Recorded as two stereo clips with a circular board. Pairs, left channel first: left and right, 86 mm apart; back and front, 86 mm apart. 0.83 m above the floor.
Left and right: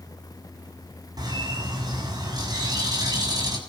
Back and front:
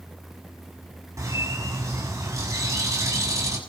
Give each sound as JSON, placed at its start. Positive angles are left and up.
{"t": 1.2, "sound": "a bird", "azimuth_deg": -50, "distance_m": 6.5}